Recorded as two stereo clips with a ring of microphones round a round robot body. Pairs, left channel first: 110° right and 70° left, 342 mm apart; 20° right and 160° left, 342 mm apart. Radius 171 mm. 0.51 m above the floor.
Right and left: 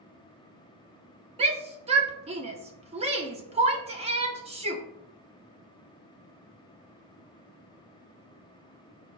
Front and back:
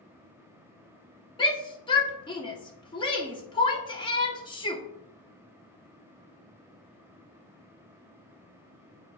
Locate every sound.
1.4 s a shout: 30° left, 0.8 m